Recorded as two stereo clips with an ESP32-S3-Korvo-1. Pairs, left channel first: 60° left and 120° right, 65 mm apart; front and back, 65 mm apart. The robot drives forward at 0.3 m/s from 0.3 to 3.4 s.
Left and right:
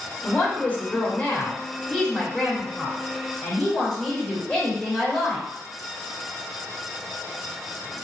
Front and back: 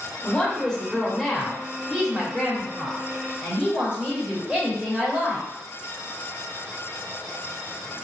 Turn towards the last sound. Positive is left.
turn(degrees=140)